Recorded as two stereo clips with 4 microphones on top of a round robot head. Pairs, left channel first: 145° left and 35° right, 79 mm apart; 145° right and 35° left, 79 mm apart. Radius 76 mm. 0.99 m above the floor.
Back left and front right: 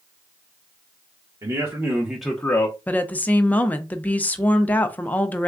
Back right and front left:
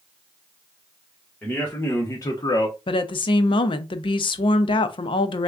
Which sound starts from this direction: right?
A man speaking, at 1.4 s.